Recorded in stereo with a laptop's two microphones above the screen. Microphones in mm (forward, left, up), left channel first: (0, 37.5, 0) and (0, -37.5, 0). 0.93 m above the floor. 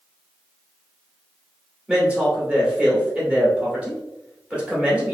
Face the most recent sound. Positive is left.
turn(degrees=-15)  # may be behind; listen again after turning